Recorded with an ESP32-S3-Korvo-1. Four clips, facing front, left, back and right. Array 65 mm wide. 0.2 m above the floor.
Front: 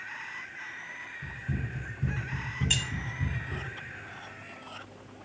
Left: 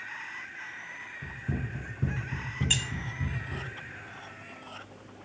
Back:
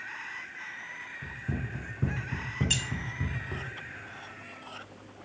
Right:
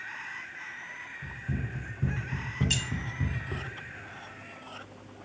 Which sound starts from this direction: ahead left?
Keys jangling, at 2.7 s.